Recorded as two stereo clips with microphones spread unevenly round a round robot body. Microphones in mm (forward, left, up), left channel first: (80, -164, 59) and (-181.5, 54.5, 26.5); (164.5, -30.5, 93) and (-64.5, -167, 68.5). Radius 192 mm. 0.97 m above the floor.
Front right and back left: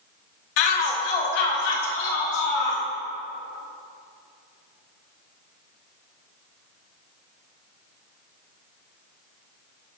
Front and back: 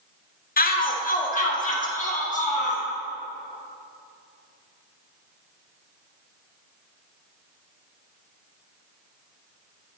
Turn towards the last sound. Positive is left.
turn(degrees=-35)